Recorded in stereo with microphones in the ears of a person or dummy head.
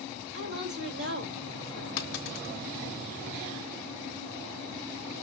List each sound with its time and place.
0.3 s a woman speaking: 50° right (ahead or behind), 2.5 m
2.0 s a dropped coin: 50° left (ahead or behind), 0.6 m